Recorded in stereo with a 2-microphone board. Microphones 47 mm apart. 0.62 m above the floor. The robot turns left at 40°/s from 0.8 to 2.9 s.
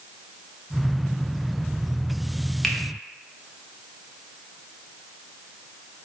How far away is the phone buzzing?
No phone buzzing in this recording.